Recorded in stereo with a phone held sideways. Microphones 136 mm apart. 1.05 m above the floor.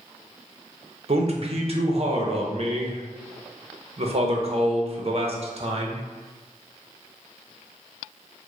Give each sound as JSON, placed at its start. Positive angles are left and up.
{"t": 1.1, "sound": "a man speaking", "side_deg": -50, "distance_m": 0.6}